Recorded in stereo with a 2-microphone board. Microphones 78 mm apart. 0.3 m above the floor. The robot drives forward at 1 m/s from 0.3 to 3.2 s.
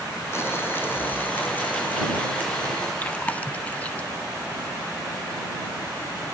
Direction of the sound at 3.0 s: 20° left (ahead or behind).